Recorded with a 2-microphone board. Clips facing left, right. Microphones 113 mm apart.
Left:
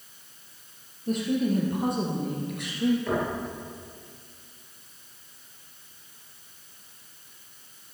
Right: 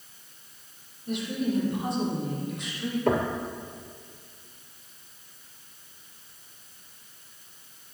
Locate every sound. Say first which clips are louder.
1.1 s a woman speaking: left 4 dB; 40° left (ahead or behind), 3.5 m; by 3.0 s 60° left (ahead or behind), 4 m
3.1 s knocking: right 3 dB; 55° right (ahead or behind), 2.5 m